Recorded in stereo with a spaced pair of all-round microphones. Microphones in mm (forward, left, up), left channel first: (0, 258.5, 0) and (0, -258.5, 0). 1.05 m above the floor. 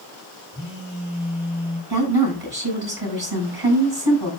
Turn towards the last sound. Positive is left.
turn(degrees=-45)  # may be behind; listen again after turning